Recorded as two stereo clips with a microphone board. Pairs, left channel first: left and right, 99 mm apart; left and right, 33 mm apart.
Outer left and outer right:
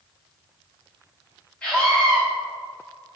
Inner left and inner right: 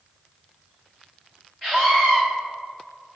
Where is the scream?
15° left (ahead or behind), 1.7 m.